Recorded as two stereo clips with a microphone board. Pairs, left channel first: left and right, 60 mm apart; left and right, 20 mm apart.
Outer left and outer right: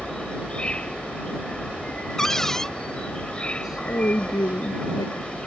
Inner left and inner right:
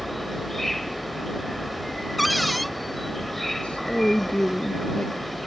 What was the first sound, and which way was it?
An insect, 15° left (ahead or behind).